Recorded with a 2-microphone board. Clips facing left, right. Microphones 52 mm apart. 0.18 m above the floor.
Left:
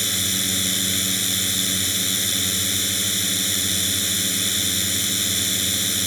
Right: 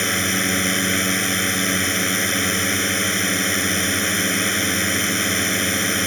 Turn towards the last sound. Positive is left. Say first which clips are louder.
# right 6 dB
turn(degrees=-45)  # may be behind; listen again after turning